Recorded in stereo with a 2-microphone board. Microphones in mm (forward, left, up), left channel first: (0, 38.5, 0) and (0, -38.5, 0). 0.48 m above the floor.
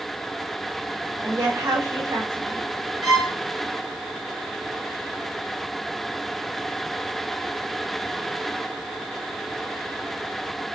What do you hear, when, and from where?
1.2 s a woman speaking: 55° right (ahead or behind), 2 m
3.0 s a violin: 75° right (ahead or behind), 2 m